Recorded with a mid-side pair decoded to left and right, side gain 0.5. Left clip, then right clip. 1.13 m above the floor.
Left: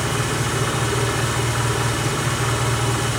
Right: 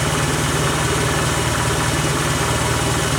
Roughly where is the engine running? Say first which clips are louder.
Right 3 dB; ahead right.